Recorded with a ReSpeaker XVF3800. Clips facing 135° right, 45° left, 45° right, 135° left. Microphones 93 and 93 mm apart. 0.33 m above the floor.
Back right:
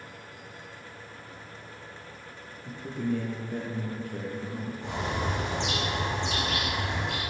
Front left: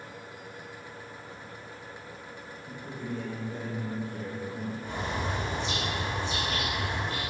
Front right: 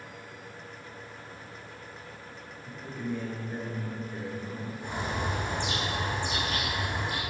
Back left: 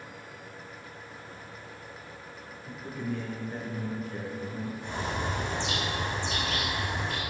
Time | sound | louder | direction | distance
2.6 | a man speaking | back right 7 dB, even | 140° right | 4.5 m
4.8 | a bird | back right 3 dB, front right 1 dB | 120° right | 5 m